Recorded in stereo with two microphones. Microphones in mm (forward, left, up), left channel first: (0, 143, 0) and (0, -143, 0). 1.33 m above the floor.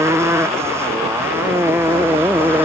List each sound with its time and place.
0.0 s a motorcycle: 10° right (ahead or behind); by 2.6 s 5° right (ahead or behind)